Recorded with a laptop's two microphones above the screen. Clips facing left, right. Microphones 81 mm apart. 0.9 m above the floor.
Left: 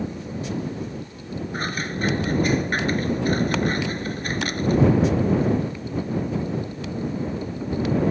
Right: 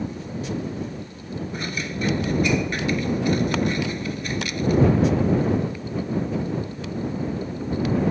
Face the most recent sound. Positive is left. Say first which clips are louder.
# left 3 dB
turn(degrees=45)  # may be behind; listen again after turning